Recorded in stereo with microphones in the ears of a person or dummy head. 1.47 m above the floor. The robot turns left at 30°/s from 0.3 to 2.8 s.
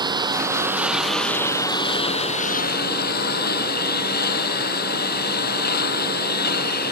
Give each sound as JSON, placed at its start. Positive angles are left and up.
{"t": 0.0, "sound": "a lawn mower", "azimuth_deg": -155}